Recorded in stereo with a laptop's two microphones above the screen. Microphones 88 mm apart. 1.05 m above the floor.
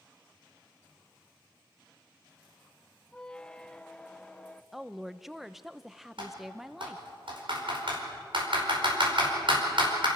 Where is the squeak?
10° left (ahead or behind), 0.6 m.